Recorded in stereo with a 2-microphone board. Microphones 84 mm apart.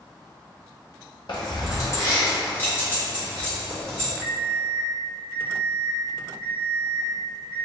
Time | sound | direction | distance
1.3 | keys jangling | 60° left (ahead or behind) | 1.0 m
4.2 | an alarm clock | 10° left (ahead or behind) | 1.9 m